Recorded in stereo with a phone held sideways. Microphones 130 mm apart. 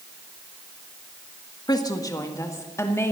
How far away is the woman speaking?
About 1.4 m.